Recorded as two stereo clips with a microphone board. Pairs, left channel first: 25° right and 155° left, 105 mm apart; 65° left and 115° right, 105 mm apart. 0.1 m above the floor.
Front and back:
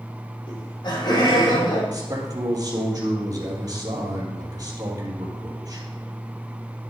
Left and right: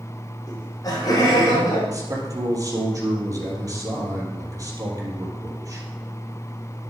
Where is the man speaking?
160° right, 3 m.